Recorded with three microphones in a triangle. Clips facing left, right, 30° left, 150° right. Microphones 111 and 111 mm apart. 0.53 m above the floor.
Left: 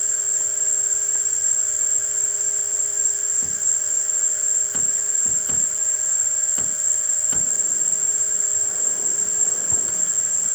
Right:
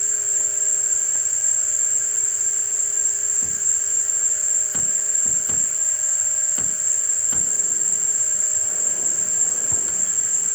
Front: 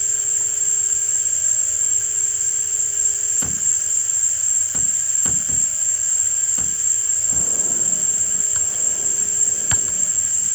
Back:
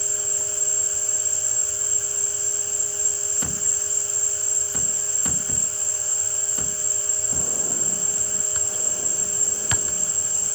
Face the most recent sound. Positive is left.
turn(degrees=145)